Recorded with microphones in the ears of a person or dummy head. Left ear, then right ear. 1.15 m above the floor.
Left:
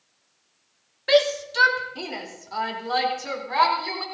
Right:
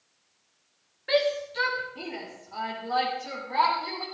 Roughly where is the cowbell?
I don't hear a cowbell.